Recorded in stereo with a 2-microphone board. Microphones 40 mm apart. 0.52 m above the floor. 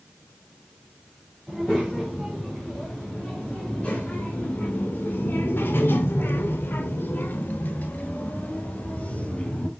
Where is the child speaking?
15° left (ahead or behind), 2.5 m; by 9.7 s 35° left (ahead or behind), 2.5 m.